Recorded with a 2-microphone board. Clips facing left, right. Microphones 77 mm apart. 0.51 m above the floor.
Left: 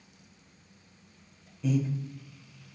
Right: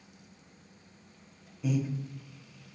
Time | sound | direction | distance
1.6 | breathing | 5° right (ahead or behind) | 0.7 m